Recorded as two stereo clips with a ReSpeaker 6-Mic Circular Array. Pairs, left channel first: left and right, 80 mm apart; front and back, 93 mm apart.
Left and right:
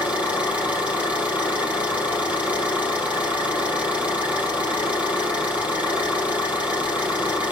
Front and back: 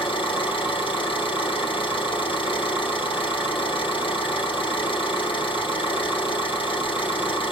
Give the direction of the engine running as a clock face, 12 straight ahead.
1 o'clock.